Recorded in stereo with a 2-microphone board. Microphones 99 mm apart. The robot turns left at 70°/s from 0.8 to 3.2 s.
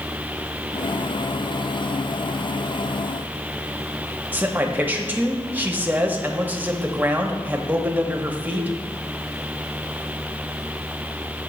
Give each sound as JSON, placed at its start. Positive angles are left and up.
{"t": 4.3, "sound": "a man speaking", "side_deg": -20, "distance_m": 0.7}